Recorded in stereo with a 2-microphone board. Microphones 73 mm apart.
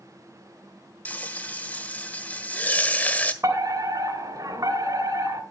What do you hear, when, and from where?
1.1 s frying: 20° left (ahead or behind), 1.5 m
3.4 s a fire alarm: 50° right (ahead or behind), 3 m